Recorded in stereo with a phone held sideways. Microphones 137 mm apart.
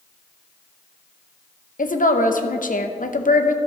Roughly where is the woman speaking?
Left.